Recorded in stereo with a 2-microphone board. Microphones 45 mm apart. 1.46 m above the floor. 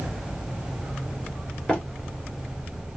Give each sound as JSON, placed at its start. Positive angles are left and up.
{"t": 1.7, "sound": "running footsteps", "side_deg": 20, "distance_m": 1.5}